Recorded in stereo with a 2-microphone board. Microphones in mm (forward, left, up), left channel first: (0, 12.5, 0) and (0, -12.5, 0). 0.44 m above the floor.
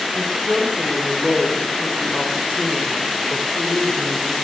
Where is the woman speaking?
15° left (ahead or behind), 2 m; by 4.3 s 60° left (ahead or behind), 2.5 m.